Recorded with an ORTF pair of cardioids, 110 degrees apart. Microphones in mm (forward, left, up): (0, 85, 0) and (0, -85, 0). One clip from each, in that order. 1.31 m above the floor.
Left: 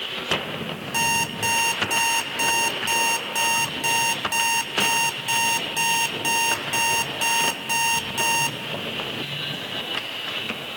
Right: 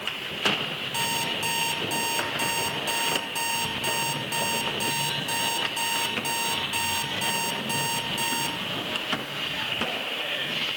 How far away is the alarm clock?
About 2 m.